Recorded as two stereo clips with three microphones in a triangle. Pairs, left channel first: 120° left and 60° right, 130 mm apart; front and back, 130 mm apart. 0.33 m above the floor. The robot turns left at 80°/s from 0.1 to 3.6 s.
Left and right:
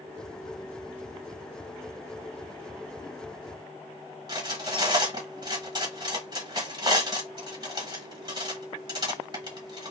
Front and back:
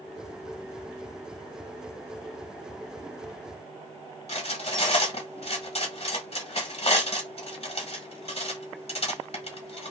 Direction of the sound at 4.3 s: 10° right.